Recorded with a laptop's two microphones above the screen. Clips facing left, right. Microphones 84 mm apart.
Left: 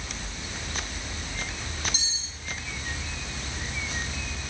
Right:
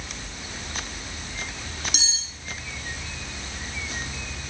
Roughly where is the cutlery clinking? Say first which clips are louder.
Right 4 dB; right.